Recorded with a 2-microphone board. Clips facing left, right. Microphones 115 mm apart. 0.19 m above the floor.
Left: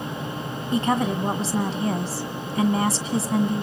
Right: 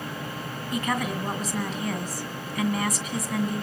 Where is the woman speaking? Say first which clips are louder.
Left 6 dB; 30° left (ahead or behind), 1.6 m.